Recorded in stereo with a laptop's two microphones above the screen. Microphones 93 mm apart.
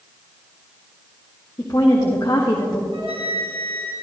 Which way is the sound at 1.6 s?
35° left (ahead or behind).